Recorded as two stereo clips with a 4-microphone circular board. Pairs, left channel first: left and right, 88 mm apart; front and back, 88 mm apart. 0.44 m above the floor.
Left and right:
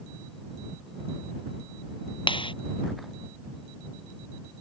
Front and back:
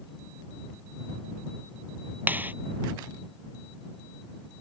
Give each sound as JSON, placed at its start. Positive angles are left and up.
{"t": 2.3, "sound": "a clap", "azimuth_deg": 110}